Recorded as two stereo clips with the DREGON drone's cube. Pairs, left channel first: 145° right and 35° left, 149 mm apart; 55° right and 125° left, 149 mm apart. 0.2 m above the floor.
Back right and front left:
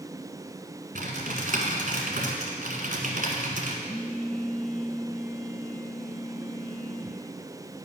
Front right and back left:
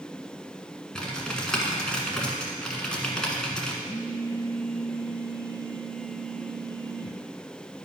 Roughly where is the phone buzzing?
Ahead right.